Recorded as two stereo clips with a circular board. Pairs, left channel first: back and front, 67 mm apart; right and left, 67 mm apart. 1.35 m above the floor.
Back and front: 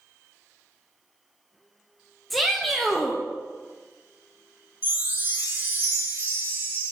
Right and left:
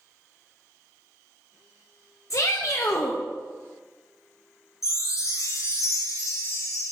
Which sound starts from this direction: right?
A shout, at 2.3 s.